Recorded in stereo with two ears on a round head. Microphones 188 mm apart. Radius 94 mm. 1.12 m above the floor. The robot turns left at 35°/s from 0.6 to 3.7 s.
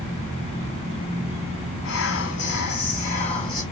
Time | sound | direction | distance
1.8 | whispering | 85° left | 0.6 m